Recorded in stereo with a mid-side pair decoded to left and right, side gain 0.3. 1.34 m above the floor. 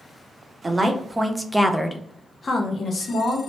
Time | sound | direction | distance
0.6 | a woman speaking | 40° right | 0.9 m